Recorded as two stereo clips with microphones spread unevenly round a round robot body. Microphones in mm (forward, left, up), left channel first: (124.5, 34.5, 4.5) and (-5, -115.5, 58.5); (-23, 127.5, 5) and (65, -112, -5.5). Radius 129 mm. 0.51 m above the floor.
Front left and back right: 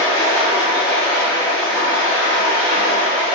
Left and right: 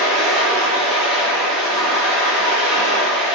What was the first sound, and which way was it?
Running water, 160° right.